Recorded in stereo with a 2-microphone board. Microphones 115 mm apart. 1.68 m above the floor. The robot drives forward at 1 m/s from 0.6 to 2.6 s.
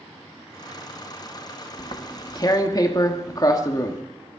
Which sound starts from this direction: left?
Tearing paper, at 1.8 s.